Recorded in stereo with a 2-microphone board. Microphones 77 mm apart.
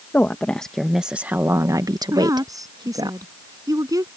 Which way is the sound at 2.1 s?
50° right (ahead or behind).